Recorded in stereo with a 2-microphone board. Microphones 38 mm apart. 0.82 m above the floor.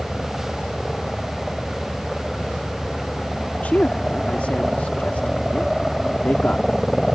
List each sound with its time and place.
0.0 s a helicopter: 5° left (ahead or behind)
3.6 s a man speaking: 45° left (ahead or behind)